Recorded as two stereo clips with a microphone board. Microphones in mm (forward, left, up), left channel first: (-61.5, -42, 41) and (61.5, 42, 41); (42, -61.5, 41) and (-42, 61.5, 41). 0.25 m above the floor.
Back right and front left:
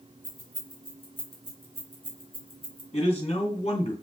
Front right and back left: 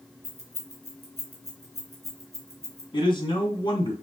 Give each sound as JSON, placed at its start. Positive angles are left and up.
{"t": 0.2, "sound": "keys jangling", "azimuth_deg": 165, "distance_m": 2.5}
{"t": 2.9, "sound": "a man speaking", "azimuth_deg": -110, "distance_m": 2.5}